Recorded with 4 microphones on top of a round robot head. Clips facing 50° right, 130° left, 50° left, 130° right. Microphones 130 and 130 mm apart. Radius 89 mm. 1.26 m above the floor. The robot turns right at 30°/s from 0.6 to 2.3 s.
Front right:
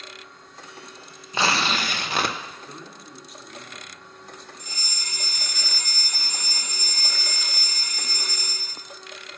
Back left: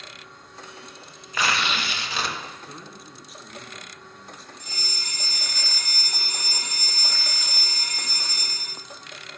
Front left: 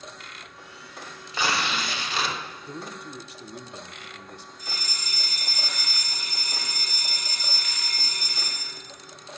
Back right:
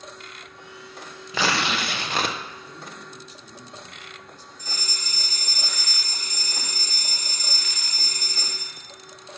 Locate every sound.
1.3 s tearing paper: 115° right, 0.7 m; by 2.4 s 85° right, 0.7 m
2.6 s a man speaking: 45° left, 0.8 m
4.6 s a fire alarm: 175° right, 2.0 m